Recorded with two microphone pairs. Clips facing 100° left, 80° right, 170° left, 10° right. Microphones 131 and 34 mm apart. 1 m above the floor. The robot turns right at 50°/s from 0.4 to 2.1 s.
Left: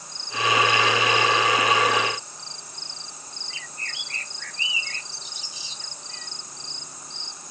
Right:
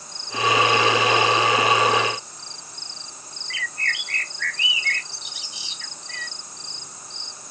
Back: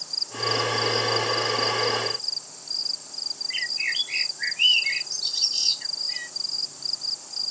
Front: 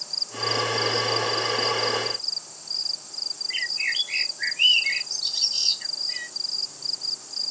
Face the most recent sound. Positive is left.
turn(degrees=-100)